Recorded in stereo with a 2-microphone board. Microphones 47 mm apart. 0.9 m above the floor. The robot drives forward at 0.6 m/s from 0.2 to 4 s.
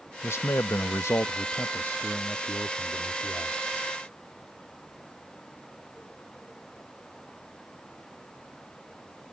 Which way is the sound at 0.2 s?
60° left (ahead or behind).